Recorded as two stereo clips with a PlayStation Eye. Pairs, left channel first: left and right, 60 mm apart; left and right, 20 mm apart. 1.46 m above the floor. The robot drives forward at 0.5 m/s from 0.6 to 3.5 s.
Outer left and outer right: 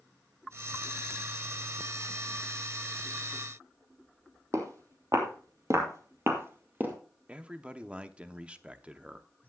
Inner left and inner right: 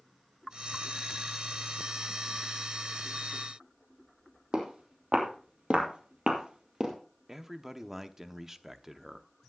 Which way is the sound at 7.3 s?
20° right (ahead or behind).